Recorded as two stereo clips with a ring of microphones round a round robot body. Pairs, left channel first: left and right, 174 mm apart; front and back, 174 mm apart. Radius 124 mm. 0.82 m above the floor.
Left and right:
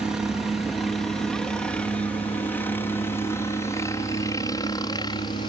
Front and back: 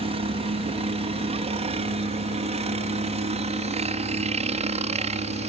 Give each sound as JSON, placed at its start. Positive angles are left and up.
{"t": 0.0, "sound": "a helicopter", "azimuth_deg": -175}